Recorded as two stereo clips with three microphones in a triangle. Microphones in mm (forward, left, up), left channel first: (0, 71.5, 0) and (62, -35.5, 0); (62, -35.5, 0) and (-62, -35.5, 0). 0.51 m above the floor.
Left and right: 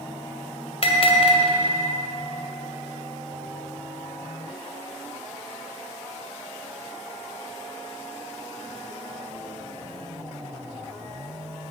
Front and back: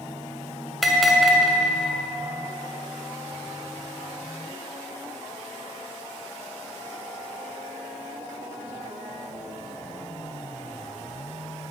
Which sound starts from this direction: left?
A bell, at 0.8 s.